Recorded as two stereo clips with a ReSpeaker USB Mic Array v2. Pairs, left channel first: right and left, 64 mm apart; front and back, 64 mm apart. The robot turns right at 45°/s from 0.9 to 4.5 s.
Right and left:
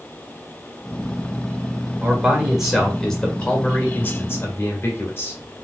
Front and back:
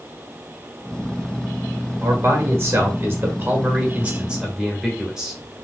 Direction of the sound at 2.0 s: 145° left.